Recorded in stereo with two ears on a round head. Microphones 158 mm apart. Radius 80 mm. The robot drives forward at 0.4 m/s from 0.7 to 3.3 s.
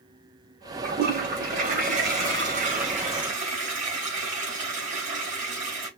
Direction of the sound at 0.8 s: 60° right (ahead or behind).